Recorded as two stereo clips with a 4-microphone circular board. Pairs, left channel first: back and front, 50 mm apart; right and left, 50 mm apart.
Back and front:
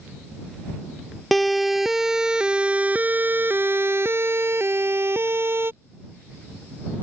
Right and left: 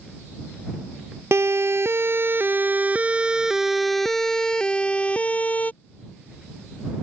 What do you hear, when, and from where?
1.3 s a siren: 90° left; by 5.7 s 35° right